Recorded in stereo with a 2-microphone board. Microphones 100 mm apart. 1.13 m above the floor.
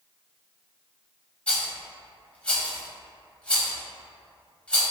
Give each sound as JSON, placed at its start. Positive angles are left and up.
{"t": 1.5, "sound": "a rattle", "side_deg": 15, "distance_m": 1.1}